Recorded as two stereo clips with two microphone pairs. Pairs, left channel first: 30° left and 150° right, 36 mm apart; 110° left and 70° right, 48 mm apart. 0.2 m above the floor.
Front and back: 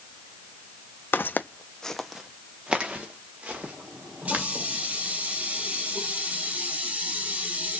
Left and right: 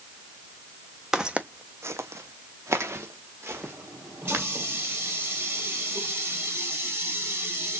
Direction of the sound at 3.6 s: 105° right.